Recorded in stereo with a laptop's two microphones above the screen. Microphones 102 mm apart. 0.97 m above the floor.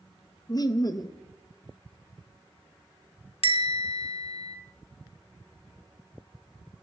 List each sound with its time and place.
0.5 s laughter: 40° left (ahead or behind), 0.7 m
3.4 s a bell: 70° left (ahead or behind), 1.4 m